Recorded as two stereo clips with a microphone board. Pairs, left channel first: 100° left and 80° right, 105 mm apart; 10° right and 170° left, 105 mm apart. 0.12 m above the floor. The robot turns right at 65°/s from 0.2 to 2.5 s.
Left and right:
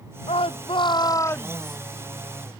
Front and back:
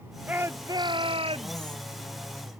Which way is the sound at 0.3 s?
95° left.